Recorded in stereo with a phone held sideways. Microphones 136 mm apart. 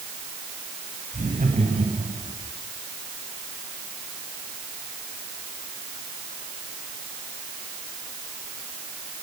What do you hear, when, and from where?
1.1 s laughter: 65° right (ahead or behind), 7 m; by 2.3 s 55° right (ahead or behind), 6.5 m